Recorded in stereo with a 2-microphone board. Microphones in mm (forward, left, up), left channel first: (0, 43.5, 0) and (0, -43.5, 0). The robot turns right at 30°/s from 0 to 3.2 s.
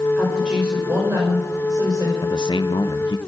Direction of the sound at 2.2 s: 65° left (ahead or behind).